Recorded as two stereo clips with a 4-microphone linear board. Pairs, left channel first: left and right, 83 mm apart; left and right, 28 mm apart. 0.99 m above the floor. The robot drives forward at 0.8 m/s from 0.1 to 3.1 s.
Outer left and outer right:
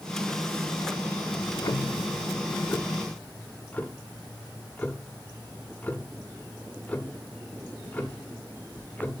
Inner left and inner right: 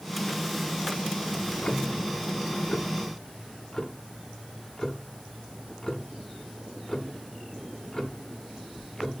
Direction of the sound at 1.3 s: 40° left (ahead or behind).